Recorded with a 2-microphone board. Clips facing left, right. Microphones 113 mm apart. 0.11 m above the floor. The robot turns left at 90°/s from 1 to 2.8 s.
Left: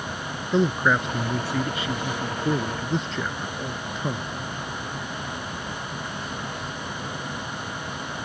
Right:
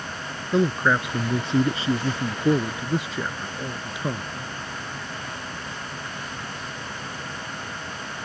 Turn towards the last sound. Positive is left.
turn(degrees=-5)  # may be behind; listen again after turning